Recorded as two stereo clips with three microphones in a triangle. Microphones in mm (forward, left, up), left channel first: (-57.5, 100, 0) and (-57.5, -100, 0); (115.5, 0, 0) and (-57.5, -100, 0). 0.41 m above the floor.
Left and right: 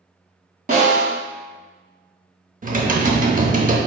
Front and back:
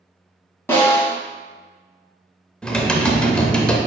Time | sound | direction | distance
0.7 | a snare drum | 50° right | 1.6 m
2.6 | typing on a keyboard | 55° right | 0.6 m